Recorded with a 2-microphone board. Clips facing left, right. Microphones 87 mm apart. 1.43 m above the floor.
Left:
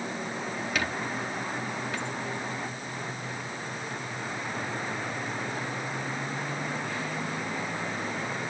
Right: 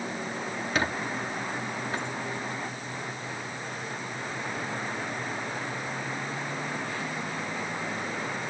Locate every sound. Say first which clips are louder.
0.8 s a squeak: right 3 dB; 30° right (ahead or behind)